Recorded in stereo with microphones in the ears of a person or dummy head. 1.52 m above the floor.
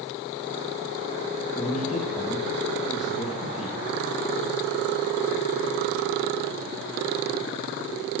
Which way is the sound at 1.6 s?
40° left (ahead or behind).